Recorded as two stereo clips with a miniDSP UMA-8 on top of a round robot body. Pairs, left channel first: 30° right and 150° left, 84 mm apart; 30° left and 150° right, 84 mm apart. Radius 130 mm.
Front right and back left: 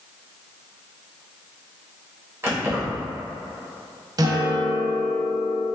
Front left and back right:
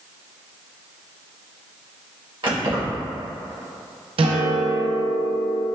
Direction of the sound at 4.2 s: 165° right.